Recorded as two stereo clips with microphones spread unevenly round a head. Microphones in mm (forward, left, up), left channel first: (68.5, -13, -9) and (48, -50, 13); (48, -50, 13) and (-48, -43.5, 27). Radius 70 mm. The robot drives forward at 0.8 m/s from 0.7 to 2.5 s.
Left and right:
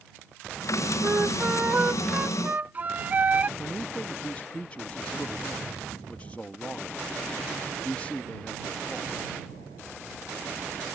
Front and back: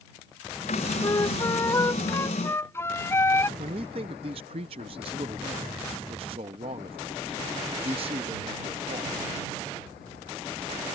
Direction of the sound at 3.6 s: 130° left.